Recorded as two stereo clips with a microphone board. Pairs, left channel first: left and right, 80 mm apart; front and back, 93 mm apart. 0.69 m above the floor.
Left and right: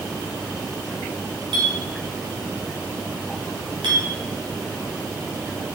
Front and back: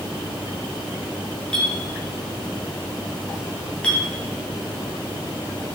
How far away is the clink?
About 2.5 m.